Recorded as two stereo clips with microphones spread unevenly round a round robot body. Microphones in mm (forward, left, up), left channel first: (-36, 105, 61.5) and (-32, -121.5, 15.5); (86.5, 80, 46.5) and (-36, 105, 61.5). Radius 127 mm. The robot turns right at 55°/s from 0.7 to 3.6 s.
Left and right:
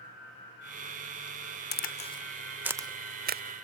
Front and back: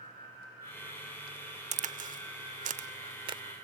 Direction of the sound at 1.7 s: 140° left.